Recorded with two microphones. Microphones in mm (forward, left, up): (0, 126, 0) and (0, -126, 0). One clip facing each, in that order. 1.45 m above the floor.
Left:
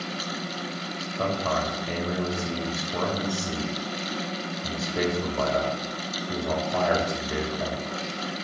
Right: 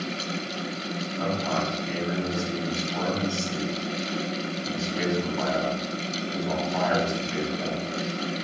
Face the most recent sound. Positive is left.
turn(degrees=60)  # may be behind; listen again after turning